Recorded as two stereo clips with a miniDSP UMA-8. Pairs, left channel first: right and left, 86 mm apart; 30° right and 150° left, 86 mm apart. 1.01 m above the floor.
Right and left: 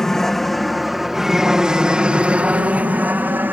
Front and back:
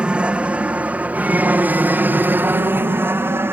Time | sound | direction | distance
0.0 | an aircraft | 165° right | ?